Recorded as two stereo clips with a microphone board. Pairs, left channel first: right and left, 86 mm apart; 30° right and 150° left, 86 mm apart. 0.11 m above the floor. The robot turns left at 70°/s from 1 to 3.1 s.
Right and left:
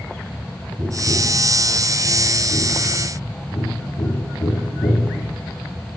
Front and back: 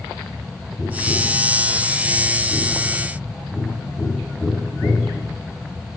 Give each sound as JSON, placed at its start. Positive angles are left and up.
{"t": 0.8, "sound": "tapping", "azimuth_deg": 45, "distance_m": 7.5}